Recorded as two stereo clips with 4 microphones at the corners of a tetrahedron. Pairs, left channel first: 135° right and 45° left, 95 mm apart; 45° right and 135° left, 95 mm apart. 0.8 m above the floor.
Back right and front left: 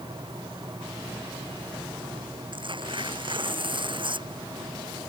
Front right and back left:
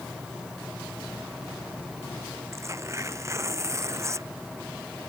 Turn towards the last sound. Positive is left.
turn(degrees=75)